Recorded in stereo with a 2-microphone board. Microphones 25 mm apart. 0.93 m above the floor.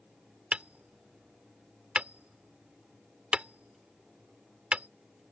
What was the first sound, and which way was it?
Hammering, 45° right (ahead or behind).